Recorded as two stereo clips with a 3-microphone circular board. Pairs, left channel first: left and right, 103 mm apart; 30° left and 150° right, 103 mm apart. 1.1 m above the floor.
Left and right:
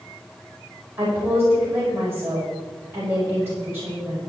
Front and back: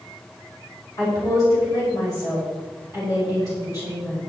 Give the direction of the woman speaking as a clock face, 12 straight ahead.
1 o'clock.